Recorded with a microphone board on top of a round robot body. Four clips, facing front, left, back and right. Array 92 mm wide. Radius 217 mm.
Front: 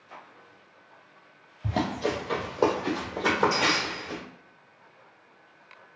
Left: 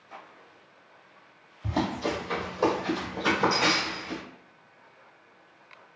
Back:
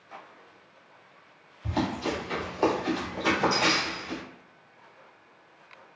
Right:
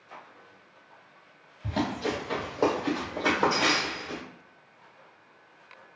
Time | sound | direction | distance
1.6 | running footsteps | 15° left | 0.9 m